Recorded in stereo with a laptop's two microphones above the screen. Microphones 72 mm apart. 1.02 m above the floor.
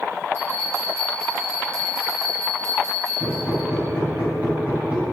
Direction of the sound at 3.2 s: 25° right (ahead or behind).